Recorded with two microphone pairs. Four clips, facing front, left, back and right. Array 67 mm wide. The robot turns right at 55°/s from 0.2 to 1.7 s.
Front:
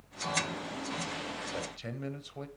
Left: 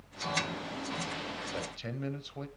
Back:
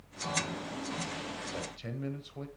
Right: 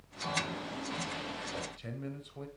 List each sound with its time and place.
1.5 s a man speaking: 50° left, 0.9 m; by 2.5 s 55° left, 0.9 m